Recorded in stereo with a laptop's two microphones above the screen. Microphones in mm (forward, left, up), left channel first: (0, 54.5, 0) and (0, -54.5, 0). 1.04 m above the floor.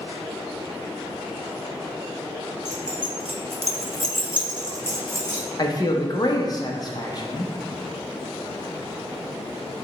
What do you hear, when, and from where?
2.6 s keys jangling: 35° right (ahead or behind), 0.9 m; by 5.4 s 20° right (ahead or behind), 1.2 m
5.6 s a man speaking: 40° left (ahead or behind), 0.7 m